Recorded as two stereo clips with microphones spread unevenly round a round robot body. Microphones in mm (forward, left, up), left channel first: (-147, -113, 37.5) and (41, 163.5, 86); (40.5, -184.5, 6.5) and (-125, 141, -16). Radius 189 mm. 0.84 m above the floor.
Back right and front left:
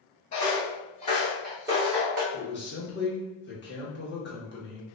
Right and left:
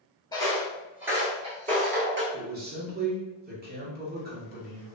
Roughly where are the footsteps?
Behind right.